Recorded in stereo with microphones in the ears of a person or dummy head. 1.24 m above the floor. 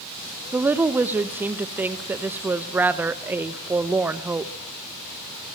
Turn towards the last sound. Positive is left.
turn(degrees=-15)  # may be behind; listen again after turning